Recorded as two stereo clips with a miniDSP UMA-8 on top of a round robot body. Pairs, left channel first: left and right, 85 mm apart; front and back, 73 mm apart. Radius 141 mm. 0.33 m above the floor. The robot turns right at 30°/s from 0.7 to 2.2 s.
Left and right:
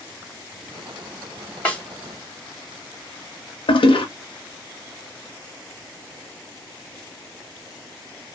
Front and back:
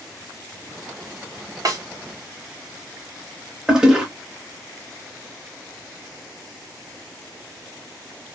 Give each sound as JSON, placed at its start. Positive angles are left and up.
{"t": 1.6, "sound": "a snare drum", "azimuth_deg": 160, "distance_m": 1.9}
{"t": 3.7, "sound": "a toilet flushing", "azimuth_deg": 100, "distance_m": 0.8}